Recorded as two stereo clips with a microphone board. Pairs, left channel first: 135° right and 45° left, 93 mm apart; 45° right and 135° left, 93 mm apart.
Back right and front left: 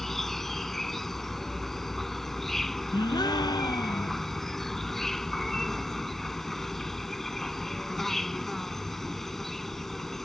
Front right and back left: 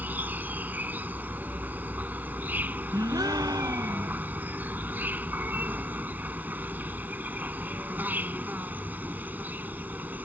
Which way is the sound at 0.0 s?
145° left.